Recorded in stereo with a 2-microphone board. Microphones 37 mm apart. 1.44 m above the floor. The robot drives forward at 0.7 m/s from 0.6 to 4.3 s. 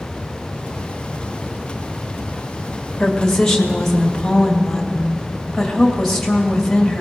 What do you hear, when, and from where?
3.0 s a woman speaking: 20° left (ahead or behind), 1.5 m; by 7.0 s 10° left (ahead or behind), 2.5 m